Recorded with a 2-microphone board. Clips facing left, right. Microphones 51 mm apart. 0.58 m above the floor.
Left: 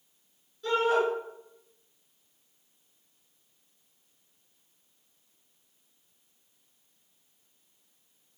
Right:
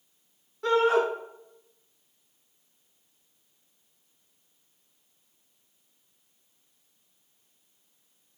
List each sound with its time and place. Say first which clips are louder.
0.6 s a shout: right 3 dB; 75° right (ahead or behind), 6.5 m